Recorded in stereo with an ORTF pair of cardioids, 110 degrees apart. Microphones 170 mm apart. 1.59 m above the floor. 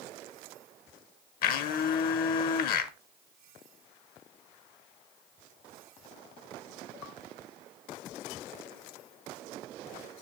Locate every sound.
1.4 s a blender: 70° left, 1.0 m